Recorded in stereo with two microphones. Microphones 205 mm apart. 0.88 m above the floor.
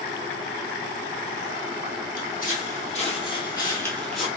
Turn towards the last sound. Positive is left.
turn(degrees=0)  # may be behind; listen again after turning